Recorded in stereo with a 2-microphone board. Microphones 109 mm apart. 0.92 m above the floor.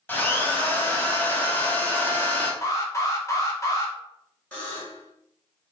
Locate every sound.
0.1 s a drill: 15° left (ahead or behind), 0.6 m
2.6 s an alarm: 30° left (ahead or behind), 0.6 m
4.5 s a buzzer: 15° left (ahead or behind), 1.1 m